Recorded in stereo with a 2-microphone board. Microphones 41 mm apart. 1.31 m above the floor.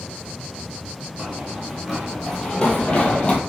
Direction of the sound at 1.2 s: 20° right (ahead or behind).